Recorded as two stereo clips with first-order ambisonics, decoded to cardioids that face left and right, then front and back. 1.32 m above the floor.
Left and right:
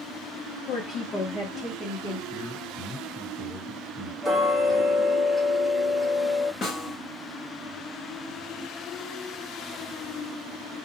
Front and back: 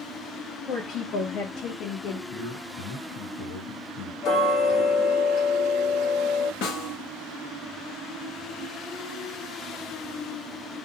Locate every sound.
0.7 s a woman speaking: 55° left, 0.7 m; by 2.2 s 10° right, 1.0 m
2.3 s a man speaking: 45° left, 1.6 m
4.2 s ticking: 10° right, 0.8 m
6.6 s a snare drum: 30° left, 0.8 m